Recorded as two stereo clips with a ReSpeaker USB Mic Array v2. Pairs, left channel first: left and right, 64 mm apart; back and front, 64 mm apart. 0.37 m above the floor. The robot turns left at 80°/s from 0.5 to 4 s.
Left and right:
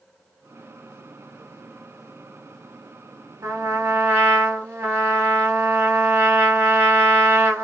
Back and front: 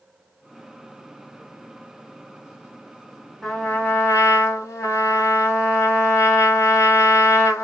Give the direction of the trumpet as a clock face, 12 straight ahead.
3 o'clock.